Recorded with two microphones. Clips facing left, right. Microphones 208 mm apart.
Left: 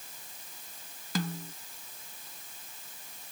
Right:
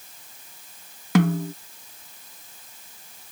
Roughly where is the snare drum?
Right.